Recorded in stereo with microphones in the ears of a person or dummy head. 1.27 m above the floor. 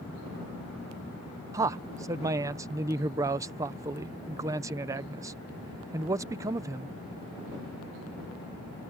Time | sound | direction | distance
1.5 | a man speaking | 15° right (ahead or behind) | ?